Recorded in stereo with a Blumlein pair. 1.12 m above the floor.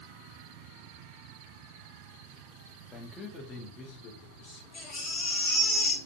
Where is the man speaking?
5° left, 0.7 m; by 4.6 s 45° left, 1.3 m.